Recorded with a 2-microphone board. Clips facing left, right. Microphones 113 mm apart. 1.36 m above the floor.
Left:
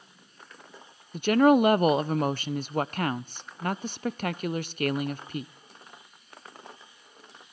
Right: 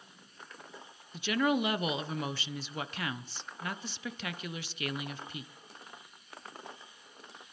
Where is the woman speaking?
50° left (ahead or behind), 0.6 m.